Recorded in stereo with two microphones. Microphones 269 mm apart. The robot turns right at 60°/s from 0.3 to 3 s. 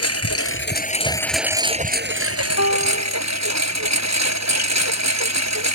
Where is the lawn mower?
115° left; by 5.8 s 80° right.